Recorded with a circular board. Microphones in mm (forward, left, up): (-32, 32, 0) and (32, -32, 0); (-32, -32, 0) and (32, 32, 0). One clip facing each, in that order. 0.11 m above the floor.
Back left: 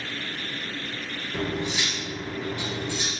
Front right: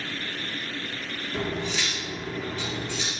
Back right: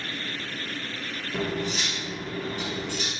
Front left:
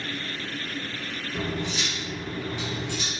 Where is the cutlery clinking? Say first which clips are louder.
Back left 1 dB, back right 2 dB; 155° right, 1.0 m.